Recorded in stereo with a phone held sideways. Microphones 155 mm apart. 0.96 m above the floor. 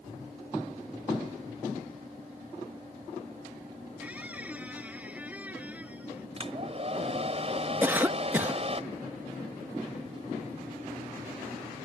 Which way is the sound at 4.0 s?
10° right (ahead or behind).